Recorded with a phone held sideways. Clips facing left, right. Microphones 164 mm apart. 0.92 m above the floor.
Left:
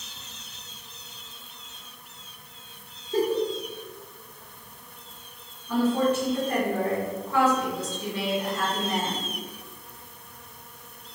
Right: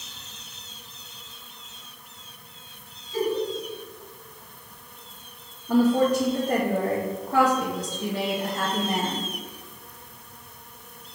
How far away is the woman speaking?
About 1.1 m.